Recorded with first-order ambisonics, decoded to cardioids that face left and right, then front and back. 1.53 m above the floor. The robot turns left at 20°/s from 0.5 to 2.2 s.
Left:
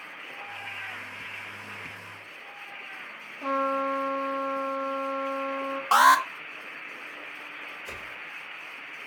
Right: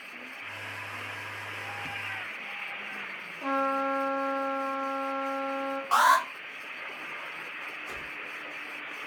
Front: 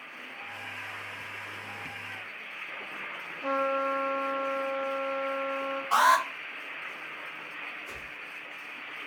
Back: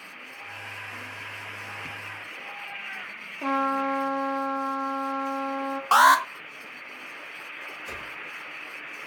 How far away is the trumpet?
About 0.9 m.